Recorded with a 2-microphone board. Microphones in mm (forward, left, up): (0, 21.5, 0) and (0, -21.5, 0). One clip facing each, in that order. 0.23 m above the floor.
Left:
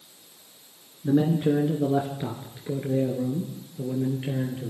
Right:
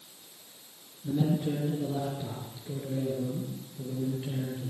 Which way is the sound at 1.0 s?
60° left (ahead or behind).